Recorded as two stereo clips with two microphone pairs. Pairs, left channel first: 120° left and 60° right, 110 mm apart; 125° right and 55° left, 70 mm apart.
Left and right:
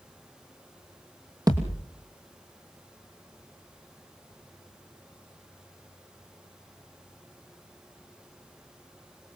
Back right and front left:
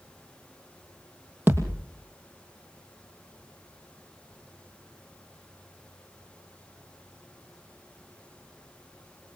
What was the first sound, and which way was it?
A thud, 5° right.